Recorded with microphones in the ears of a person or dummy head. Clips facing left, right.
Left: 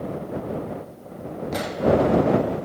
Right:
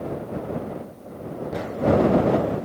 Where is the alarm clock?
I don't hear an alarm clock.